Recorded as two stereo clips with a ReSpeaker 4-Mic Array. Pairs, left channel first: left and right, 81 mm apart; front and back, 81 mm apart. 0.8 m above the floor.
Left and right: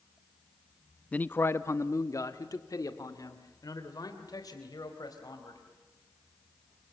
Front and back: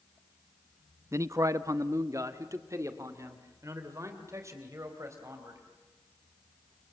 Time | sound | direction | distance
1.1 | a man speaking | 155° left | 0.6 m